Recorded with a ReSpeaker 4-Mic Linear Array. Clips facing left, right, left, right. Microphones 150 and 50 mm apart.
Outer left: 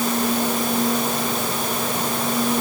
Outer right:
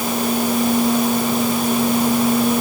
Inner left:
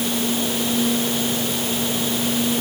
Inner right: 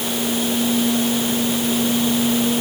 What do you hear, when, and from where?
Only background noise.